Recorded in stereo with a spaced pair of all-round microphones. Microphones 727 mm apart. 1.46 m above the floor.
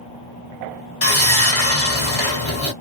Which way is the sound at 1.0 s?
30° left (ahead or behind).